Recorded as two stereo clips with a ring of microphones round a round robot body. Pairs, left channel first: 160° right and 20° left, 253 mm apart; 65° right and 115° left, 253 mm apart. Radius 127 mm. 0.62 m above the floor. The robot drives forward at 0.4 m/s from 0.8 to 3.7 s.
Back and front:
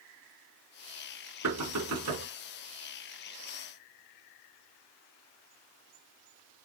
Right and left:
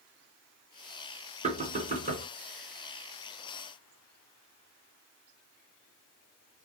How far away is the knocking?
About 4.5 m.